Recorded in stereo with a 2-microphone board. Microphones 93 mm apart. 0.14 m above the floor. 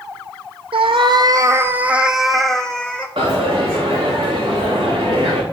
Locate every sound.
0.7 s a cat meowing: 75° right (ahead or behind), 0.6 m; by 3.1 s 15° left (ahead or behind), 1.1 m
3.2 s a dropped coin: 65° right (ahead or behind), 3 m